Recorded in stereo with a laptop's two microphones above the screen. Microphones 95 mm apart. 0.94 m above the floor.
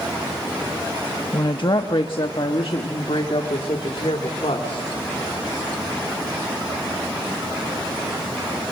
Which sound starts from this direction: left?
A woman speaking, at 1.3 s.